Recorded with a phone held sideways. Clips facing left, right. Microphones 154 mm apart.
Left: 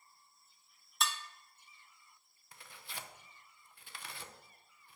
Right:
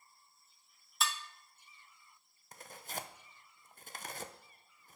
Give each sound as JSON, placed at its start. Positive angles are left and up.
{"t": 1.0, "sound": "dishes clattering", "side_deg": 0, "distance_m": 0.8}
{"t": 2.5, "sound": "tearing paper", "side_deg": -45, "distance_m": 0.6}